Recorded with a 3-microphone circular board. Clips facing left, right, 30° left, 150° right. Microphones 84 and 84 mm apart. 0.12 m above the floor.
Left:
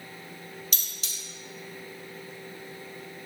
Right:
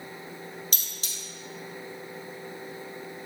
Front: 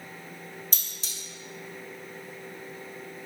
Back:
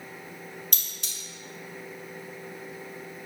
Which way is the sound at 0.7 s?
130° right.